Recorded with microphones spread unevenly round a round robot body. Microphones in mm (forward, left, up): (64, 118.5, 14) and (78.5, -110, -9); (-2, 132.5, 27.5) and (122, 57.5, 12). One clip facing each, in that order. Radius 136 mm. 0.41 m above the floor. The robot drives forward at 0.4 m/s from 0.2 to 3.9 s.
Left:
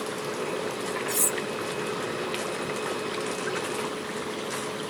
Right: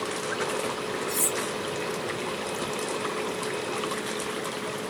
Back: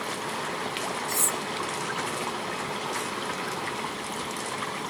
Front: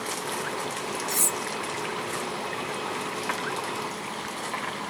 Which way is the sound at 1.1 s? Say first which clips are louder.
Even, even; 20° left.